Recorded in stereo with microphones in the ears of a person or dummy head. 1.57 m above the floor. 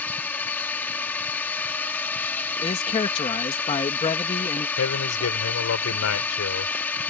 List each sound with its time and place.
0.0 s a drone: 5° left (ahead or behind)
2.6 s a man speaking: 30° left (ahead or behind)
4.8 s a man speaking: 85° left